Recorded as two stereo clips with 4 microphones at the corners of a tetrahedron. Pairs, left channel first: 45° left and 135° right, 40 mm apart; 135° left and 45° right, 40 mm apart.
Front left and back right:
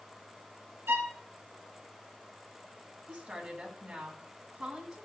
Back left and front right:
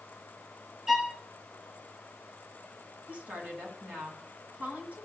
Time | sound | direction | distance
0.9 | a violin | 125° right | 0.9 m
3.1 | a woman speaking | 80° right | 2 m